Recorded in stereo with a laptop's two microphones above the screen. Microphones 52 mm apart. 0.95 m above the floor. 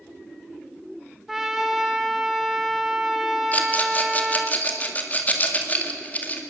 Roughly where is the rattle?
Left.